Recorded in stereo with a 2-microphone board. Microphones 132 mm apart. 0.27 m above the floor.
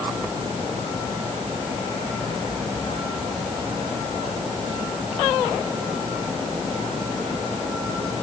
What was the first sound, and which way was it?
Only background noise.